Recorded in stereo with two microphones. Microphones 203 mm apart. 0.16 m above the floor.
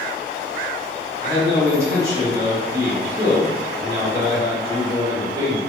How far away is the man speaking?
About 1.7 m.